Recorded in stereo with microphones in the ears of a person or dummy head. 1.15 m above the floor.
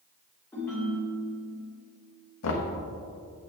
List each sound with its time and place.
0.5 s a ringtone: 10° left (ahead or behind), 2.5 m
2.4 s knocking: 70° left (ahead or behind), 1.0 m